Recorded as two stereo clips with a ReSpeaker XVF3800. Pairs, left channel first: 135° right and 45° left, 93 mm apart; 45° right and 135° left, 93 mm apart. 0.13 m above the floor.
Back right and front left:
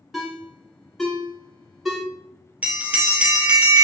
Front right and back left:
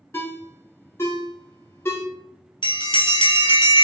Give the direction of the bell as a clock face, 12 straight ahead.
1 o'clock.